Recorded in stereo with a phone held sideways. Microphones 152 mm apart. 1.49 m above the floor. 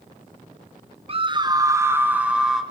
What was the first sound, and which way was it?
A scream, 40° right (ahead or behind).